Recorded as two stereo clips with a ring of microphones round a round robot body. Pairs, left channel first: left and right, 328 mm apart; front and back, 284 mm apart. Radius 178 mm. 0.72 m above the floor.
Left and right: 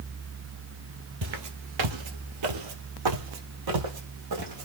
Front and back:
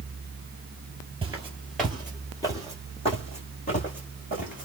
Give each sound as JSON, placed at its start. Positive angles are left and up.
{"t": 1.2, "sound": "footsteps", "azimuth_deg": -110, "distance_m": 0.8}